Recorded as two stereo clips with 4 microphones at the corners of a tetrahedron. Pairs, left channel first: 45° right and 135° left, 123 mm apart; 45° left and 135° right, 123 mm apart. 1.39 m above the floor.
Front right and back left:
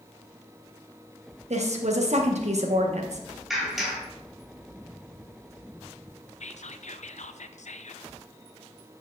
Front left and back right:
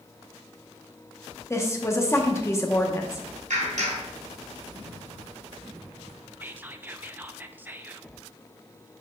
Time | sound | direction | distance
1.5 | a woman speaking | 115° left | 1.1 m
3.5 | a clap | 135° right | 3.5 m
6.4 | whispering | 60° right | 0.5 m